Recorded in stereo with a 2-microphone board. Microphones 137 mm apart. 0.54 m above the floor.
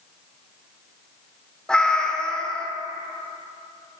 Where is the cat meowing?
5° left (ahead or behind), 0.7 m.